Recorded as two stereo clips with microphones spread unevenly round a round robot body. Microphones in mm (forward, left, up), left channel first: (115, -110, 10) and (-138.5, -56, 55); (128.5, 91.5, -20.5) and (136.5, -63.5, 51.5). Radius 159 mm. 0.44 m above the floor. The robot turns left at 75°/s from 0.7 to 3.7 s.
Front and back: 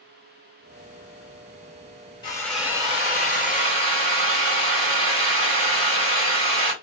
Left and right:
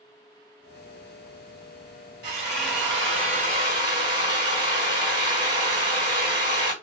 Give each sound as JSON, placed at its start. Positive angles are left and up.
{"t": 2.2, "sound": "a drill", "azimuth_deg": -65, "distance_m": 1.6}